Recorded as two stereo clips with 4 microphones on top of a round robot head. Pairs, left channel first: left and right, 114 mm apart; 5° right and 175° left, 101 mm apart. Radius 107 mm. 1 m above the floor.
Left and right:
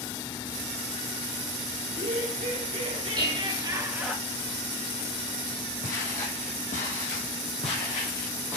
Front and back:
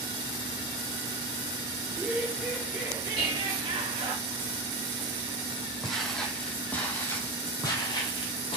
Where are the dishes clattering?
135° right, 4.5 m.